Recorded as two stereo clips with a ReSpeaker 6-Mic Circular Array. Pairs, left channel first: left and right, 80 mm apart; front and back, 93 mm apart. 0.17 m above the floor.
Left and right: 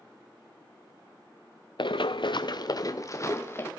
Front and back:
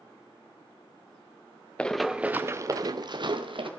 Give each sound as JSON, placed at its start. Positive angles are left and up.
{"t": 1.8, "sound": "running footsteps", "azimuth_deg": 80, "distance_m": 0.9}